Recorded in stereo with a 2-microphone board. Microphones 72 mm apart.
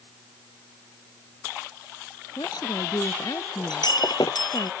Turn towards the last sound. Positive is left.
turn(degrees=80)